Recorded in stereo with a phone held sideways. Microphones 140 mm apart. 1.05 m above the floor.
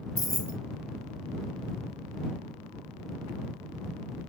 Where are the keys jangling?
25° left (ahead or behind).